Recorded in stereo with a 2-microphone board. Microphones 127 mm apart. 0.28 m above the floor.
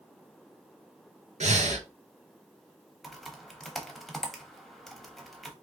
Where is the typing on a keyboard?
Centre (ahead or behind), 0.6 m.